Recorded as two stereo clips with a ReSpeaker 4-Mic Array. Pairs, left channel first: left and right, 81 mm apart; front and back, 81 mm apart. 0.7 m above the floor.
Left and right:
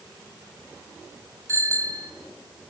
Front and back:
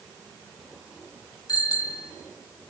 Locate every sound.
1.5 s a bicycle bell: 35° right, 3 m